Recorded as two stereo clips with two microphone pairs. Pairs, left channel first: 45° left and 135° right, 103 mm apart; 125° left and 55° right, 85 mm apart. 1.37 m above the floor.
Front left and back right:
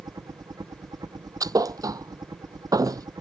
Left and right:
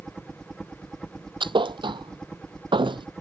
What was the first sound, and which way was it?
A helicopter, 155° right.